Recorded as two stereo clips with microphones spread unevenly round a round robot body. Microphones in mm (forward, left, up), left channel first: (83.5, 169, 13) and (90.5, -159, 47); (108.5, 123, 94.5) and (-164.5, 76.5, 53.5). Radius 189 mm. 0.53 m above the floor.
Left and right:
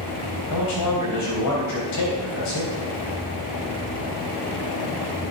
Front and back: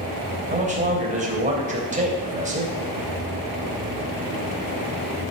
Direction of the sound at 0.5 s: 130° left.